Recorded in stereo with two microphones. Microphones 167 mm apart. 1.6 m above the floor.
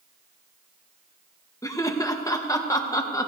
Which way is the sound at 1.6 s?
20° left (ahead or behind).